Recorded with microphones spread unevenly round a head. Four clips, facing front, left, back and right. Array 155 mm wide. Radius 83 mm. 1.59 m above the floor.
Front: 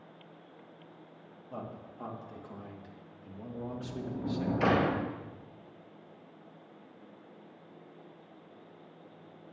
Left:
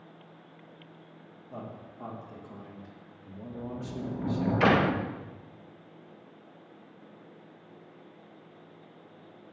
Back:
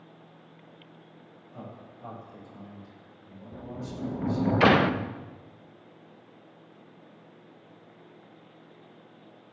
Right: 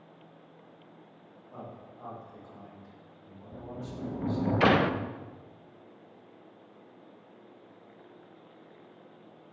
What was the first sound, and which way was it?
A man speaking, 30° left.